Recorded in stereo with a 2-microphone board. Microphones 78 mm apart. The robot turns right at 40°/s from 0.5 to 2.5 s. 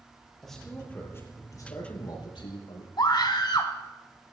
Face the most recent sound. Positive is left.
turn(degrees=60)  # may be behind; listen again after turning